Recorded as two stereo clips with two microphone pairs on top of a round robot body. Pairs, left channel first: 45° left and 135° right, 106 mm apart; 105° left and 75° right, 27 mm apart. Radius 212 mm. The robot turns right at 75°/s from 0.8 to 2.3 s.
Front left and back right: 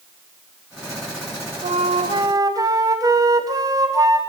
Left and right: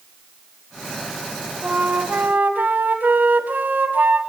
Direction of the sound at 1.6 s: 130° right.